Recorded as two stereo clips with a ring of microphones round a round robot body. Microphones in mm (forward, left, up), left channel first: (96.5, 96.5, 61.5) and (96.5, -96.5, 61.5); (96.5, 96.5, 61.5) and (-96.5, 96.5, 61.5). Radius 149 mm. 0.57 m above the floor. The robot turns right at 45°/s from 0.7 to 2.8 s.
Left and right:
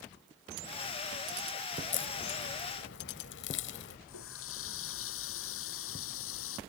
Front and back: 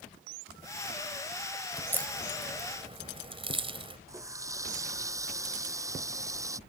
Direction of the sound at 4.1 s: 105° left.